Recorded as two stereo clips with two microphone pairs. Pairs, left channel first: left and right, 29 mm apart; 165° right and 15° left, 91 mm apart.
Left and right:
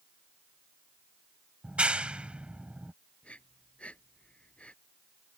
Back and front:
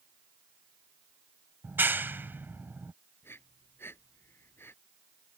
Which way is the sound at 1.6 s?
50° right.